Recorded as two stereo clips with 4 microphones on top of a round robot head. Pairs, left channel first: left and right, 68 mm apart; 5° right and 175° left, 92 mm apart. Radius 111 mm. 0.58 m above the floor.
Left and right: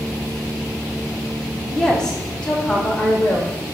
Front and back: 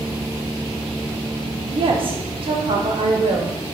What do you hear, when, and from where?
1.7 s a woman speaking: 170° left, 1.4 m; by 3.5 s 160° left, 2.5 m